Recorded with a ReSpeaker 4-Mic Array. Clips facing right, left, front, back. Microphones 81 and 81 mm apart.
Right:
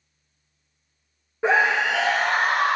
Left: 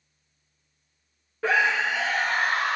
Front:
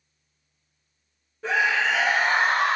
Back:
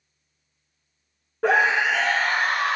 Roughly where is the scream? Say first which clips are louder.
Right 3 dB, back 4 dB; behind.